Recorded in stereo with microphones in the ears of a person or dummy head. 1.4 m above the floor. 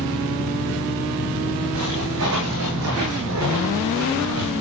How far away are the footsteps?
About 6 m.